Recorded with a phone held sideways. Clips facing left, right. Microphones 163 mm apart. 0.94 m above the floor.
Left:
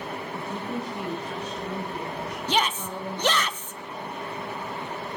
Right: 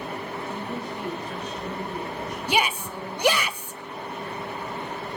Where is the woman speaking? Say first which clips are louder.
Left 3 dB; 80° left, 10 m.